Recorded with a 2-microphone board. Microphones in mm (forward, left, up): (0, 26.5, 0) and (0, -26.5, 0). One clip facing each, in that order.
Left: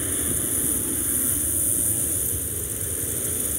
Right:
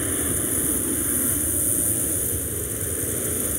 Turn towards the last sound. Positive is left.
turn(degrees=-20)  # may be behind; listen again after turning